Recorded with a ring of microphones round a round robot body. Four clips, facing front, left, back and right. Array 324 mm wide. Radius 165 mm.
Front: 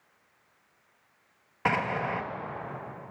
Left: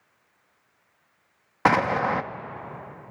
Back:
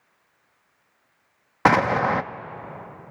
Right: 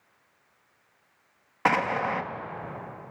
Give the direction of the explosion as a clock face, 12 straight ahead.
7 o'clock.